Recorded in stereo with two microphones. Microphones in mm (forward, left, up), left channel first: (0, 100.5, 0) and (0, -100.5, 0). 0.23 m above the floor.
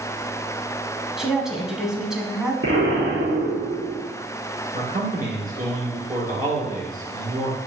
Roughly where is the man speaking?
Right.